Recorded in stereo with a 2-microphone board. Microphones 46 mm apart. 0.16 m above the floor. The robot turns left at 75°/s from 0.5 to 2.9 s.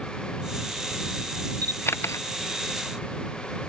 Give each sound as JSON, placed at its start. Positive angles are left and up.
{"t": 1.6, "sound": "a camera shutter", "side_deg": 35}